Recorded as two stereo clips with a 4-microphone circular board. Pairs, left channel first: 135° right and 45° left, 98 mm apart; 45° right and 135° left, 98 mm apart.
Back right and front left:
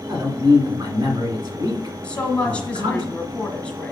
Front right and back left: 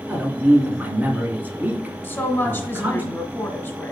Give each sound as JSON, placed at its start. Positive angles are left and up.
{"t": 0.1, "sound": "a man speaking", "azimuth_deg": 70, "distance_m": 1.8}
{"t": 2.0, "sound": "a woman speaking", "azimuth_deg": -75, "distance_m": 1.0}